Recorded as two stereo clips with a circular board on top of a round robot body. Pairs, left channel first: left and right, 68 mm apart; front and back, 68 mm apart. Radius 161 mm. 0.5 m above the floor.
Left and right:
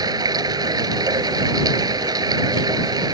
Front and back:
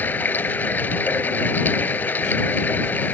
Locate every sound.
0.0 s running water: 65° right